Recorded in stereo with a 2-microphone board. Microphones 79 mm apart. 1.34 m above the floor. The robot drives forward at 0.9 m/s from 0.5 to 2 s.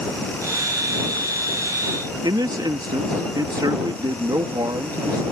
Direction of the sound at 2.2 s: 60° right (ahead or behind).